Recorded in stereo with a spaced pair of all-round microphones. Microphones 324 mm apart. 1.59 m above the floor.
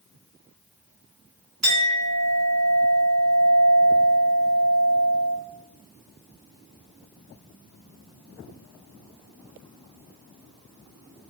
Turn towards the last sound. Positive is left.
turn(degrees=-50)  # may be behind; listen again after turning